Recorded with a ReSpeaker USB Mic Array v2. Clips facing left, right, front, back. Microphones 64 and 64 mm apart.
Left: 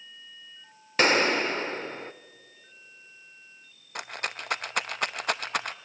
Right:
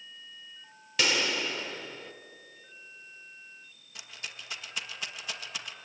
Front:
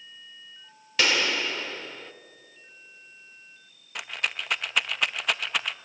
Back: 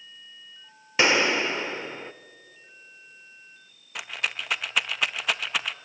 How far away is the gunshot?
About 0.7 m.